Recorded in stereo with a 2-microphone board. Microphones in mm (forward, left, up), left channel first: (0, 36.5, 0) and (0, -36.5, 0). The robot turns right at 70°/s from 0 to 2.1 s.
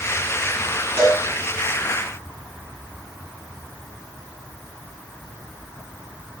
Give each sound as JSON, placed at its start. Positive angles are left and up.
{"t": 1.0, "sound": "a cowbell", "side_deg": -35, "distance_m": 7.5}